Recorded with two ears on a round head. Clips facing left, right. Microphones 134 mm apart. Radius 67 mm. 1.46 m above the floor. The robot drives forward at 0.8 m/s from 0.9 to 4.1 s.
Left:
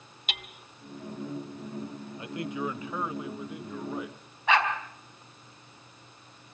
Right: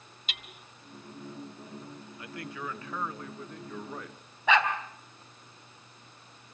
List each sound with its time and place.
0.3 s hammering: 45° left (ahead or behind), 2.5 m
2.2 s a man speaking: 20° left (ahead or behind), 1.1 m; by 4.2 s 10° left (ahead or behind), 2.5 m
4.5 s a dog barking: 75° right (ahead or behind), 4.5 m